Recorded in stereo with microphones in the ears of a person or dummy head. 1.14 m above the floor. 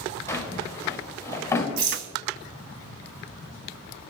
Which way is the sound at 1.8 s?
70° right (ahead or behind).